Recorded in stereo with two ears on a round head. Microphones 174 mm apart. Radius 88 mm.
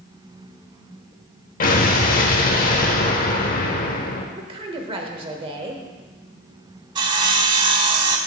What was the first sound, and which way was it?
An explosion, 45° left (ahead or behind).